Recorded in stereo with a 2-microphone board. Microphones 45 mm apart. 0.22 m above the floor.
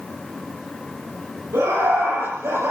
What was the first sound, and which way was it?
Laughter, 80° right.